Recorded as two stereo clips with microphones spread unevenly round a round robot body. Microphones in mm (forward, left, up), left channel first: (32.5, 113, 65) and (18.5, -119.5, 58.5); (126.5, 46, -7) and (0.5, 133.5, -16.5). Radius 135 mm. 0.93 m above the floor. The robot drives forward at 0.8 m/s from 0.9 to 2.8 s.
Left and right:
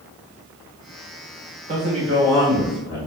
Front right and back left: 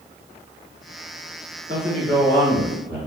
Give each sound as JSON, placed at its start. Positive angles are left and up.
{"t": 1.7, "sound": "a man speaking", "azimuth_deg": -155, "distance_m": 1.4}